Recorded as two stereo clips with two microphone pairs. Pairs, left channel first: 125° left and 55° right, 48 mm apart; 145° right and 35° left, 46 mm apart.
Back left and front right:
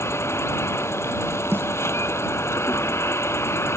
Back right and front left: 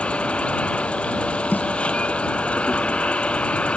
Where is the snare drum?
95° right.